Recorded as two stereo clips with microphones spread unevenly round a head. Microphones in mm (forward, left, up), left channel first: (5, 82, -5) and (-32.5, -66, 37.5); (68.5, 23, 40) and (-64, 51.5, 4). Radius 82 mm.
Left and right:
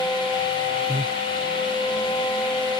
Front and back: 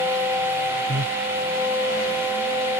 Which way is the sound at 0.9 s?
170° right.